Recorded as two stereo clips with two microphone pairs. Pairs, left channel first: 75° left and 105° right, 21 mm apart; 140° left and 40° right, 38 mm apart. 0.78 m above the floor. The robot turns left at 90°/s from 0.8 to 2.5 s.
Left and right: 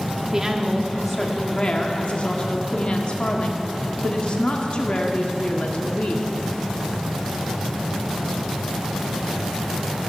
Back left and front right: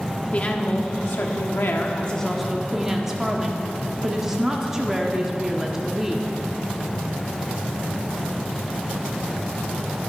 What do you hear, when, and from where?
0.3 s a woman speaking: 165° right, 1.2 m; by 6.3 s 40° left, 1.2 m